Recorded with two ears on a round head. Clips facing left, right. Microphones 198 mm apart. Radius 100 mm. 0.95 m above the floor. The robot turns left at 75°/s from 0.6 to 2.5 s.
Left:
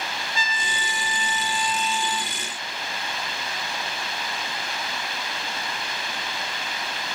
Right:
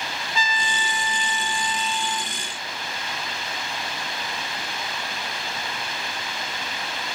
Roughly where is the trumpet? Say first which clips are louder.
Right 6 dB; right.